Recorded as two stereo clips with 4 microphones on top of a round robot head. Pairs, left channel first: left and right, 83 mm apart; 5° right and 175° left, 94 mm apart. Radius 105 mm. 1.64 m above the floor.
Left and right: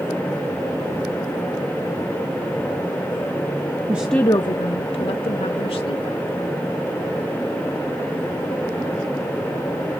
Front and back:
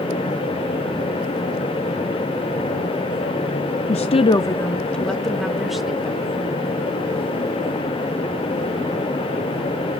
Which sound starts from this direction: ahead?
A woman speaking, at 3.9 s.